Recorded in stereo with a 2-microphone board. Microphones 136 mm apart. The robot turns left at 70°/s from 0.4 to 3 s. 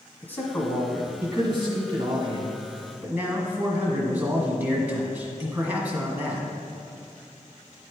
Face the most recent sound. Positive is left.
turn(degrees=-160)